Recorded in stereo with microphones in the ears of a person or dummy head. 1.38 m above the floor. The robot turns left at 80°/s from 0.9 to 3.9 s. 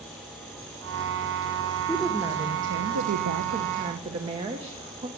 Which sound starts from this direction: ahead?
A woman speaking, at 1.9 s.